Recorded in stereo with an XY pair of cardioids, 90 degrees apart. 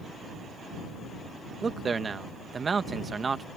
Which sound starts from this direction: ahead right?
A man speaking, at 1.6 s.